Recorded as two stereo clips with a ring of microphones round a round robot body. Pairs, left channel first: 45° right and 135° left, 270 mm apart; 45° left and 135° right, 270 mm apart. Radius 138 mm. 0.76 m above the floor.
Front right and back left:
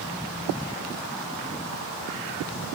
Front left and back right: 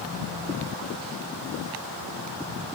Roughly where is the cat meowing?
I don't hear a cat meowing.